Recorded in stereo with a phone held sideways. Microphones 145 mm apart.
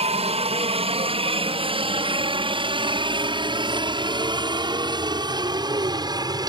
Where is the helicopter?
45° right (ahead or behind); by 6.5 s 30° right (ahead or behind).